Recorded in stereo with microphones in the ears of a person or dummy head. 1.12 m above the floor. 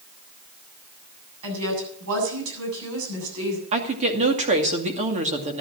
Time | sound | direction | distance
1.4 | a woman speaking | 80° right | 8 m
3.7 | a woman speaking | 35° right (ahead or behind) | 2.5 m